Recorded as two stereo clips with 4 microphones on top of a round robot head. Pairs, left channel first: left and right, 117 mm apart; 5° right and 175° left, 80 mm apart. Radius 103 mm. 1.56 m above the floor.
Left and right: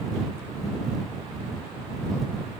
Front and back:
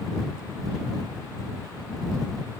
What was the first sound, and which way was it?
Only background noise.